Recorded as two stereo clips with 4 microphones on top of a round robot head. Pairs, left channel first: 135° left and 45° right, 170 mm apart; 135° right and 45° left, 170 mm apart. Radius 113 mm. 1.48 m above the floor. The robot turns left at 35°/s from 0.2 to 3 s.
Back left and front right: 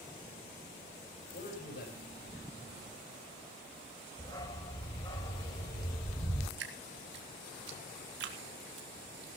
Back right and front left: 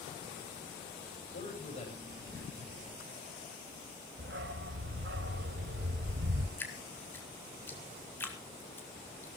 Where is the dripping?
60° right, 2.5 m.